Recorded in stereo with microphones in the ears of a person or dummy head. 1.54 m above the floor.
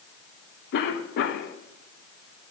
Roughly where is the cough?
Left.